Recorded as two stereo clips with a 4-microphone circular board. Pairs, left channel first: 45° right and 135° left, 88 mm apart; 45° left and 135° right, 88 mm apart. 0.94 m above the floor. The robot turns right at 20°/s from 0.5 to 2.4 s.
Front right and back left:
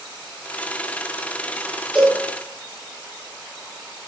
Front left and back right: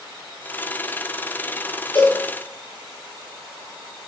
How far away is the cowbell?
About 5 m.